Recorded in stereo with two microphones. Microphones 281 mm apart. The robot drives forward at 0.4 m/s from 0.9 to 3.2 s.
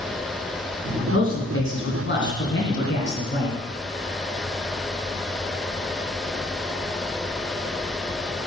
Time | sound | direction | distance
1.1 | a man speaking | 50° left (ahead or behind) | 2 m